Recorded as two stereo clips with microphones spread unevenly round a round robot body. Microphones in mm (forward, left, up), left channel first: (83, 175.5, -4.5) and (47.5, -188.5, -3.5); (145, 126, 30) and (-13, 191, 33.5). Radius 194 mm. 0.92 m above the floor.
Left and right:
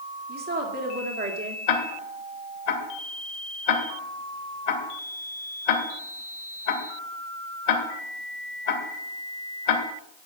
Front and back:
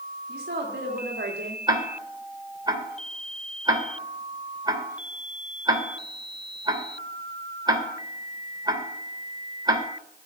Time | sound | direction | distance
0.3 | a woman speaking | 160° right | 2 m
1.7 | ticking | 90° left | 3 m